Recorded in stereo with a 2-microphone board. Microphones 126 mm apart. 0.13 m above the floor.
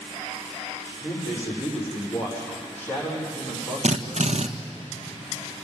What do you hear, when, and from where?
1.0 s a man speaking: 10° left (ahead or behind), 8 m
3.8 s a drill: 65° right (ahead or behind), 1.5 m